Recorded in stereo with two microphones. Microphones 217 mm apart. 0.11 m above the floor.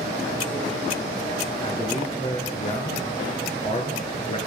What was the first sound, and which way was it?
A man speaking, 30° left (ahead or behind).